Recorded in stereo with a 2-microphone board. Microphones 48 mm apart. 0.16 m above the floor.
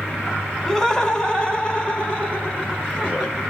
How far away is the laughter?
About 1.1 m.